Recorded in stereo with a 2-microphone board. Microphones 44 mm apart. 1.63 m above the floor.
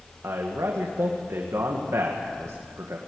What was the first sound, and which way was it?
A man speaking, 75° right (ahead or behind).